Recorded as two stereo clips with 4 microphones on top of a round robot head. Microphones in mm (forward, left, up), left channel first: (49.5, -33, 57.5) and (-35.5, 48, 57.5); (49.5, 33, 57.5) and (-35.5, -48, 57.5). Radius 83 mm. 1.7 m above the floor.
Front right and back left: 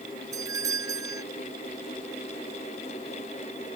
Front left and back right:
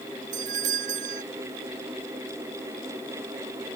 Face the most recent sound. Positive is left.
turn(degrees=-160)